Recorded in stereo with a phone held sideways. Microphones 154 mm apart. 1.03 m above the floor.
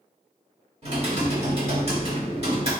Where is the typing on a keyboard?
40° right (ahead or behind), 1.5 m.